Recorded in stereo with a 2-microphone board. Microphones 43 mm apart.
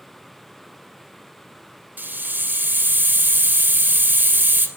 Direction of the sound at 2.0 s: 45° right (ahead or behind).